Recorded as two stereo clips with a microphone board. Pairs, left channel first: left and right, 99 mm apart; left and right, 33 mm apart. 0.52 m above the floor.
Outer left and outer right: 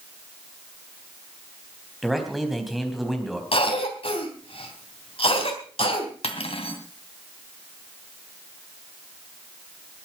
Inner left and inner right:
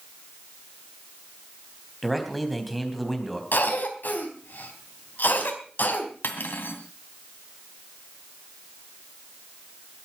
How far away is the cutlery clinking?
About 2.5 m.